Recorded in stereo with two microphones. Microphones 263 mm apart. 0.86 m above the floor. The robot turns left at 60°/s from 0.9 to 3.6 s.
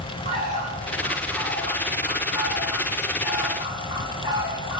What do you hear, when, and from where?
0.2 s a bird: 140° right, 2.5 m; by 4.8 s 55° left, 2.5 m